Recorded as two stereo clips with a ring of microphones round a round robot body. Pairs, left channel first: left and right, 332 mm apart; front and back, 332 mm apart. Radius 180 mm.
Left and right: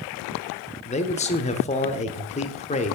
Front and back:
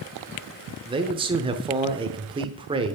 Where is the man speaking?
130° left, 0.9 m.